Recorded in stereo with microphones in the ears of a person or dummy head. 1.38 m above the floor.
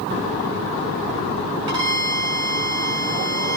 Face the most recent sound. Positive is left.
turn(degrees=-20)  # may be behind; listen again after turning